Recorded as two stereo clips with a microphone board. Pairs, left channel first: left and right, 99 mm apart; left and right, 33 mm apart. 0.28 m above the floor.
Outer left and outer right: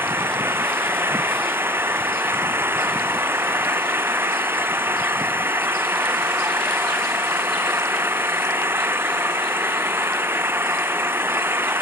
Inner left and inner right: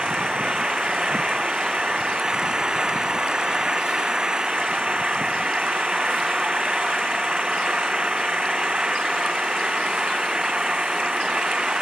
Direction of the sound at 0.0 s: 25° right (ahead or behind).